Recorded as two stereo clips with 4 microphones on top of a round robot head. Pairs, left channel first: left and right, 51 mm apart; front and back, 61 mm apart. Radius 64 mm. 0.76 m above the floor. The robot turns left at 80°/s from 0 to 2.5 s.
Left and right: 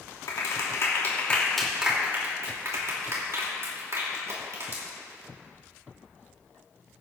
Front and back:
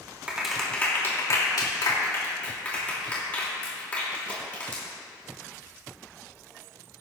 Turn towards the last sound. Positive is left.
turn(degrees=-70)